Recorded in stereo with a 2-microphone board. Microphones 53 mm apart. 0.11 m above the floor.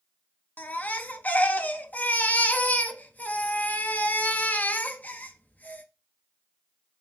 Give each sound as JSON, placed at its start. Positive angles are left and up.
{"t": 0.6, "sound": "a baby crying", "side_deg": 30, "distance_m": 0.5}